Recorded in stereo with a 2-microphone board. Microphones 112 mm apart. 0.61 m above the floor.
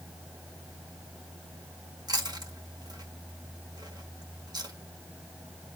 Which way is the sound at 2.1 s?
35° right (ahead or behind).